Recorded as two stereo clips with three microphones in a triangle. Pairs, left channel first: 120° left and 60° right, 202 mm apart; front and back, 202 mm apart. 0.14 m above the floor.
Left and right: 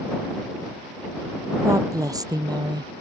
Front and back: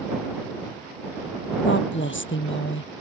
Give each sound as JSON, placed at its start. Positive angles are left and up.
{"t": 1.6, "sound": "a woman speaking", "azimuth_deg": 15}